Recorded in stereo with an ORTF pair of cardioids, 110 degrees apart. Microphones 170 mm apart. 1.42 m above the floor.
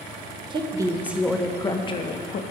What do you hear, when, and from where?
0.5 s a woman speaking: 30° right, 0.8 m; by 2.4 s 50° left, 0.8 m